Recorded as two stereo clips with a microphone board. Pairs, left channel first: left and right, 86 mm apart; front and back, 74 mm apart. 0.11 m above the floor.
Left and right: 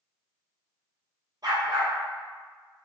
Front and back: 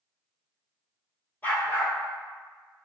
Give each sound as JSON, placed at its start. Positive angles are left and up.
{"t": 1.4, "sound": "a dog barking", "azimuth_deg": -60, "distance_m": 1.1}